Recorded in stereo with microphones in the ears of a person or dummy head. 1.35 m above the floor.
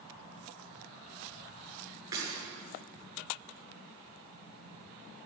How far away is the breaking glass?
About 7.5 m.